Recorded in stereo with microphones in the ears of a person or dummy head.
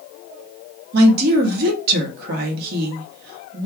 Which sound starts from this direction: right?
A woman speaking, at 0.9 s.